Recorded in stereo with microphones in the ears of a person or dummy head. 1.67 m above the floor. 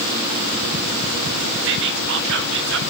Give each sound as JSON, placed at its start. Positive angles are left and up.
{"t": 1.6, "sound": "whispering", "side_deg": -65, "distance_m": 1.5}